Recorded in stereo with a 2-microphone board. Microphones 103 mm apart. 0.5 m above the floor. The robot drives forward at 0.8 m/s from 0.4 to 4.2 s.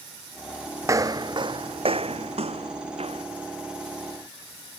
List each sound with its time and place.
0.8 s footsteps: 25° right (ahead or behind); by 3.2 s 70° right (ahead or behind)